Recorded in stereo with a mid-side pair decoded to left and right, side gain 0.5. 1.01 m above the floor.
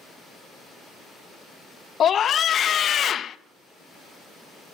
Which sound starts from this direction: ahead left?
A scream, at 2.0 s.